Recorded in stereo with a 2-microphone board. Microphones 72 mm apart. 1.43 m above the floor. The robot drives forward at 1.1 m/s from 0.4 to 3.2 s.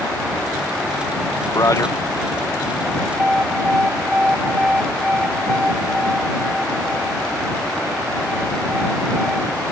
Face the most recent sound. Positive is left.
turn(degrees=-15)  # may be behind; listen again after turning